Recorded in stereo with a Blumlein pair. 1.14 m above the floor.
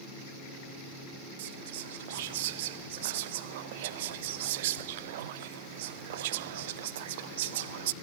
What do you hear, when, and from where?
1.4 s whispering: 55° right, 0.6 m